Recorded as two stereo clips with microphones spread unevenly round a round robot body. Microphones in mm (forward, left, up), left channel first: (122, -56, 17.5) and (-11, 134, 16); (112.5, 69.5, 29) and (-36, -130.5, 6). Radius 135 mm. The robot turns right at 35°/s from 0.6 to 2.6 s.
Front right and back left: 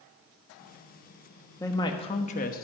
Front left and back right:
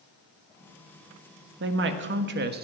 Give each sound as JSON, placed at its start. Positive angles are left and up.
{"t": 1.6, "sound": "a woman speaking", "azimuth_deg": -130, "distance_m": 1.1}